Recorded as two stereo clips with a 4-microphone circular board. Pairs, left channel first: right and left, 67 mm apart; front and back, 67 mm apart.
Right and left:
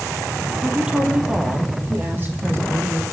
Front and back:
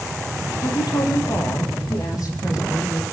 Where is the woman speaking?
10° left, 5.5 m; by 3.0 s 35° left, 7 m.